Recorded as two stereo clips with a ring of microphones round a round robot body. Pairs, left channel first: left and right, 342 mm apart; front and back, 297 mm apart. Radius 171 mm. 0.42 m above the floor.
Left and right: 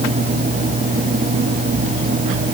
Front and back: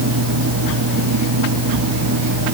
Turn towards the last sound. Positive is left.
No sound to turn to.